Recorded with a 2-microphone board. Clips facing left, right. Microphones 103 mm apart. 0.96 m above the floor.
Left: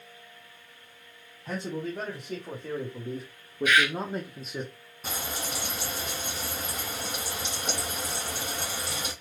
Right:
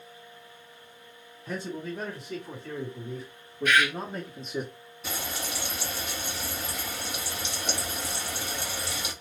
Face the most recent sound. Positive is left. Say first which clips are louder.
# even
turn(degrees=40)  # may be behind; listen again after turning